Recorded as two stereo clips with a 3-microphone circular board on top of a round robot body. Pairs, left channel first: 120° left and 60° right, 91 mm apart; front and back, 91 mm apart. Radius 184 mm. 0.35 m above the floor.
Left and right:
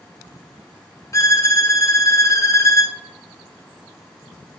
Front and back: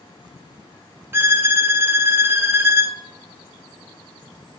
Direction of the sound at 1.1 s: 140° left.